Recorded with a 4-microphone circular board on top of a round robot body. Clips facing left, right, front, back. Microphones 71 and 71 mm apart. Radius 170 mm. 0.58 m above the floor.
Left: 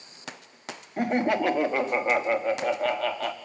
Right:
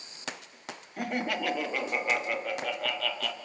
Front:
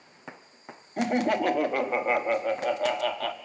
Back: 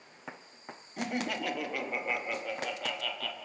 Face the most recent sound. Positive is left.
turn(degrees=35)